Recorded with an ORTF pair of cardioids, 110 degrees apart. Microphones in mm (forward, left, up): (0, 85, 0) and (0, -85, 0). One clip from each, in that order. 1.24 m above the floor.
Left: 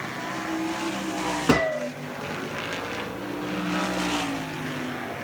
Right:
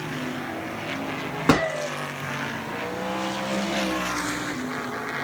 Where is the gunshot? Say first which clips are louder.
Right 2 dB; 25° right, 1.4 m.